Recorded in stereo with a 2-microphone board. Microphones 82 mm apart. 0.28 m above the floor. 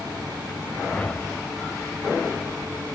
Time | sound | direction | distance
0.8 | a whoosh | 15° left (ahead or behind) | 0.5 m